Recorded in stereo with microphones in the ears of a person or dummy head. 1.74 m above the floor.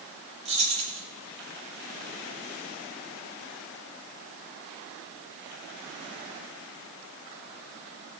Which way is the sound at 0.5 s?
35° right (ahead or behind).